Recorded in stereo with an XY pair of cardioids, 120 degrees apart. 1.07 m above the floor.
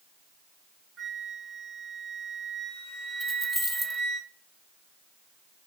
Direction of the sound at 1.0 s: 35° right.